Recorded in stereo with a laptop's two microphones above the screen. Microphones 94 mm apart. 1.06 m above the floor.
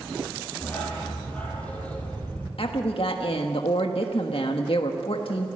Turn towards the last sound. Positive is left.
turn(degrees=75)  # may be behind; listen again after turning